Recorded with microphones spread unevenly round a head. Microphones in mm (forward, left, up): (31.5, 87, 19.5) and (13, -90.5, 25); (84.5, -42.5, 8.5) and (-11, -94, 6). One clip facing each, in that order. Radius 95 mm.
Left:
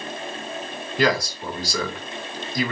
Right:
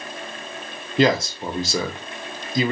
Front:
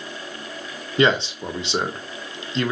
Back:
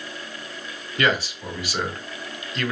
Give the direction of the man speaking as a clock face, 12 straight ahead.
1 o'clock.